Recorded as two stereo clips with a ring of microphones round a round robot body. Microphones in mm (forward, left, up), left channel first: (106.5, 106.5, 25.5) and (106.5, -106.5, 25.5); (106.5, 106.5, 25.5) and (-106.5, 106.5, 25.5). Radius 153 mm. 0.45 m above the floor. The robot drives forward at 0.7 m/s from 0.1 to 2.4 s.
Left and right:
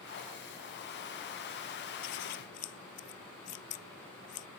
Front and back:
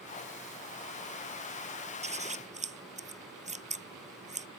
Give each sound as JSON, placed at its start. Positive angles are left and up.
{"t": 2.0, "sound": "scissors", "azimuth_deg": 120}